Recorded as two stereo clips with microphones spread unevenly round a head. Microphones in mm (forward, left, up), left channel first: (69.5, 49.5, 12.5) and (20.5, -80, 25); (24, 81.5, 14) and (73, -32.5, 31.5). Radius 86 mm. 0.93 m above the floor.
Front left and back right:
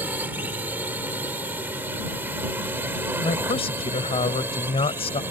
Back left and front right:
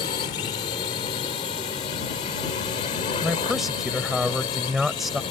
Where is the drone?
170° left.